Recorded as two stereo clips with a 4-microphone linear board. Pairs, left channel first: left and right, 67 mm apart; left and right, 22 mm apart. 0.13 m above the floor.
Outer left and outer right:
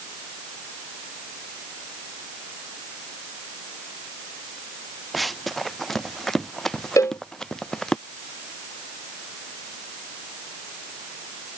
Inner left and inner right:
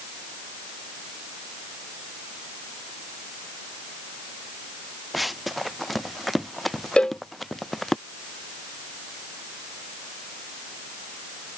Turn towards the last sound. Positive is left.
turn(degrees=50)  # may be behind; listen again after turning